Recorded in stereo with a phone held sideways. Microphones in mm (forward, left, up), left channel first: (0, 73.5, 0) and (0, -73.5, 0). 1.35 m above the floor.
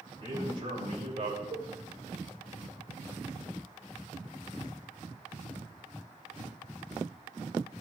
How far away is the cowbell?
About 4 m.